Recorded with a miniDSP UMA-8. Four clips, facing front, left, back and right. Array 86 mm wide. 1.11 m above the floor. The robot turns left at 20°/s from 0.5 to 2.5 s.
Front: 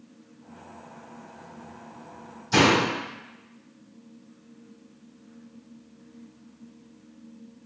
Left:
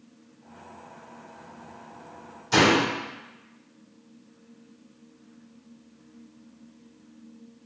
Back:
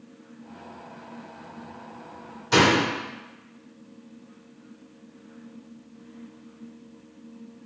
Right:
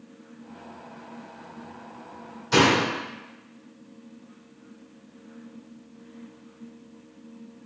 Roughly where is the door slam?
Behind.